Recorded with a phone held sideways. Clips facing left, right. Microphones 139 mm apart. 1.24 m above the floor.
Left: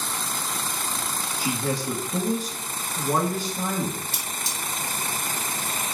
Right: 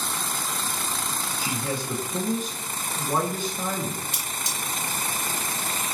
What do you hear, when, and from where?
1.4 s a man speaking: 80° left, 2 m
4.1 s cutlery clinking: 15° right (ahead or behind), 1.2 m